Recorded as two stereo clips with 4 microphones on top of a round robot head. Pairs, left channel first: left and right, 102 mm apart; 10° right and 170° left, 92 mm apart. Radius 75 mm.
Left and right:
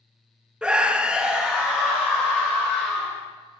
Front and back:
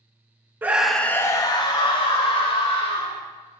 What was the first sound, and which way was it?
A scream, 155° right.